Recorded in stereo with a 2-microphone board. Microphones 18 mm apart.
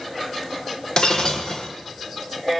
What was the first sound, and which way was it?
Breaking glass, 45° left (ahead or behind).